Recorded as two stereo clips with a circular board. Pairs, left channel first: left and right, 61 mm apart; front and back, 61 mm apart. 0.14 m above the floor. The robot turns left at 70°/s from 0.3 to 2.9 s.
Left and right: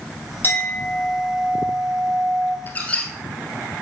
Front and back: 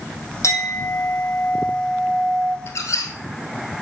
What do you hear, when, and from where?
0.4 s a clink: 35° left, 3 m; by 2.6 s 115° right, 3 m
2.7 s a squeak: 40° left, 1.5 m; by 3.1 s 25° left, 1.5 m